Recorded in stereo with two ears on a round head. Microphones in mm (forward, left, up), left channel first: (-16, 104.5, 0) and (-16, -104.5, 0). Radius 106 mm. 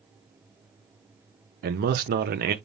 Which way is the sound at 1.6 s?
40° right (ahead or behind).